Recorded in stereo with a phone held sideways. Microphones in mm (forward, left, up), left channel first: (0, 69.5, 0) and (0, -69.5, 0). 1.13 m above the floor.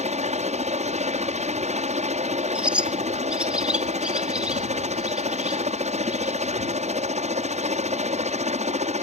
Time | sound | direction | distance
0.0 | a helicopter | 55° right (ahead or behind) | ?
2.5 | a bird | 10° right (ahead or behind) | ?